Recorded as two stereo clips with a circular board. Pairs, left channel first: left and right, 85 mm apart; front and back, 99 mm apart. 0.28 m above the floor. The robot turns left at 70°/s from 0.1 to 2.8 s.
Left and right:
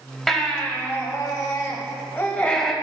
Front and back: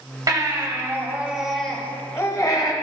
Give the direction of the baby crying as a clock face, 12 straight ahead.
6 o'clock.